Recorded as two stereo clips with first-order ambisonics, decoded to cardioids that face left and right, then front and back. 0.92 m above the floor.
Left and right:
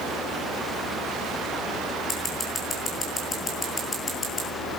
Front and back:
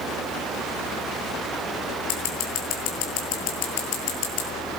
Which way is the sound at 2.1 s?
15° left.